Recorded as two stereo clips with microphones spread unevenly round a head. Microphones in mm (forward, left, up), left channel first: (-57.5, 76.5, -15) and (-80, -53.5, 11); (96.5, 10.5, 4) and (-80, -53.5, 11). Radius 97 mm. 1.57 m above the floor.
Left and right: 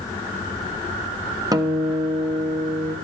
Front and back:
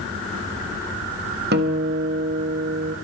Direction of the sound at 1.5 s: 145° right.